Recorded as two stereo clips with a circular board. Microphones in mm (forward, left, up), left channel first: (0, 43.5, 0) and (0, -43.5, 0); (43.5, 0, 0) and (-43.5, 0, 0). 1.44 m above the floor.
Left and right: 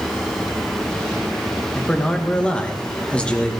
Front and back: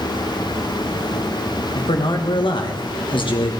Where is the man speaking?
10° left, 2 m.